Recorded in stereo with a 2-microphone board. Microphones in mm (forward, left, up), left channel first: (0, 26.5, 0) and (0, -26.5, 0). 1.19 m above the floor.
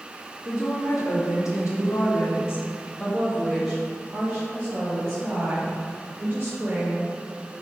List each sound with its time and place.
0.5 s a woman speaking: 85° left, 1.6 m; by 7.5 s 45° right (ahead or behind), 3 m